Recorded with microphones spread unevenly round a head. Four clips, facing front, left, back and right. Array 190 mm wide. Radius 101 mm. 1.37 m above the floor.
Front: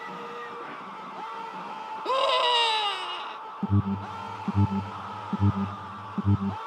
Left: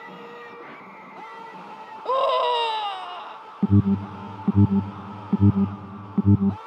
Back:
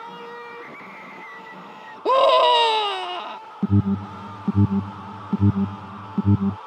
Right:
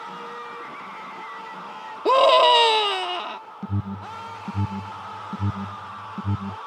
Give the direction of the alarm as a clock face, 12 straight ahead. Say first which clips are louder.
Left 12 dB, back 7 dB; 8 o'clock.